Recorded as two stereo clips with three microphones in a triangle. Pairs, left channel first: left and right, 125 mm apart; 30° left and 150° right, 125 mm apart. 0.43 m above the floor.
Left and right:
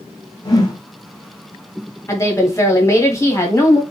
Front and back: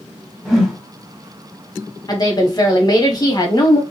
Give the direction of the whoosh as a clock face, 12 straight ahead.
8 o'clock.